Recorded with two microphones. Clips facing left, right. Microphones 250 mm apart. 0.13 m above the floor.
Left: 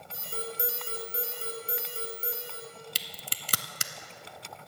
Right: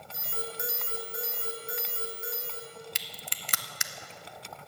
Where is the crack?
40° left (ahead or behind), 0.6 m.